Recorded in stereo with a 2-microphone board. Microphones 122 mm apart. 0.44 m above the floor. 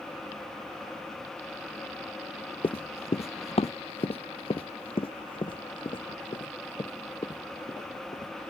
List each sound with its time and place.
2.6 s running footsteps: 50° left (ahead or behind); by 8.5 s 40° left (ahead or behind)